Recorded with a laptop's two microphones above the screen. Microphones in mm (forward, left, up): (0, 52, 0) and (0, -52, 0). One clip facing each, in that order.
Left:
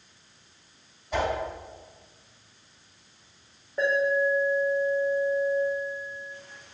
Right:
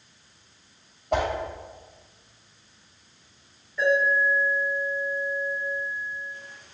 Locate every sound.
1.1 s a whoosh: 70° right (ahead or behind), 2.5 m
3.8 s an alarm: 55° left (ahead or behind), 2.5 m